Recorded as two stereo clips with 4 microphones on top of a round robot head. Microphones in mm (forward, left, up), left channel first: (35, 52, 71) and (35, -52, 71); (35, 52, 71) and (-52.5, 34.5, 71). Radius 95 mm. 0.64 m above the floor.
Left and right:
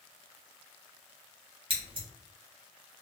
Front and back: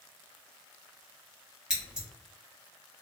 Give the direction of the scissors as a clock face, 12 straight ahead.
3 o'clock.